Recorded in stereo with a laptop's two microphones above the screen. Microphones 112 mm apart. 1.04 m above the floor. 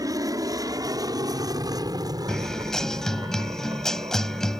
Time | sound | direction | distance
0.0 | an aircraft | 30° right (ahead or behind) | ?
2.3 | a guitar | 5° left (ahead or behind) | ?